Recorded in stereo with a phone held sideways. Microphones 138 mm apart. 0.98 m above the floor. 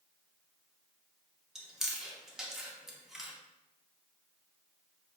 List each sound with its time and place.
1.6 s chewing: 5° right (ahead or behind), 0.6 m